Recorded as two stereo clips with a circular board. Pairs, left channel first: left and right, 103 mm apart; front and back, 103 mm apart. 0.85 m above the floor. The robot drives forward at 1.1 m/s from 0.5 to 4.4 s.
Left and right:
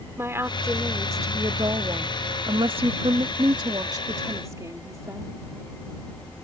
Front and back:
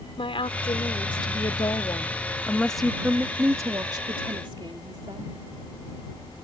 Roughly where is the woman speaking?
Ahead right.